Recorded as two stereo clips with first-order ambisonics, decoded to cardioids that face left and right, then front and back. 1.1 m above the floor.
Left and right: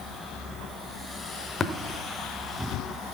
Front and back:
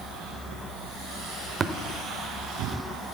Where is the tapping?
135° left, 0.9 m.